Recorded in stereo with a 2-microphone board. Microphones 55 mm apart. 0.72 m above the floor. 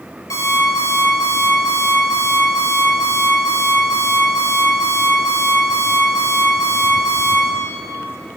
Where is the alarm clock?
80° left, 10 m.